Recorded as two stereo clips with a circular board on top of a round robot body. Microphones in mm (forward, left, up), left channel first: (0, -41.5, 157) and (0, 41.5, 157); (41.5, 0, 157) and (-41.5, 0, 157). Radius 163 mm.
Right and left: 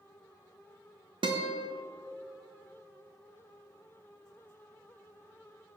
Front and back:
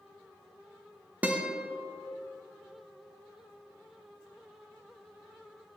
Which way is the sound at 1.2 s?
110° left.